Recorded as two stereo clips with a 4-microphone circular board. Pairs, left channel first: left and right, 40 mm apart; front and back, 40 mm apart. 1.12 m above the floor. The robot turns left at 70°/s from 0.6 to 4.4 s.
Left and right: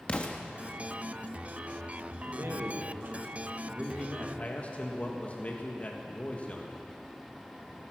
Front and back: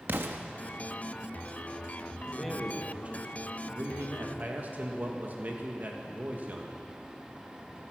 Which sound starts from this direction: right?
A man speaking, at 2.3 s.